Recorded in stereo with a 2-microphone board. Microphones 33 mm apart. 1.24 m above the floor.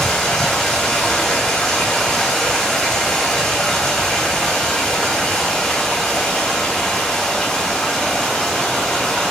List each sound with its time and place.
0.0 s running water: 10° left (ahead or behind), 5 m